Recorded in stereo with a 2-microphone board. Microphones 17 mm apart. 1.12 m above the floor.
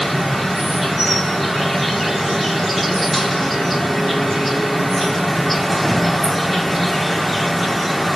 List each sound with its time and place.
0.0 s an insect: centre (ahead or behind), 1.3 m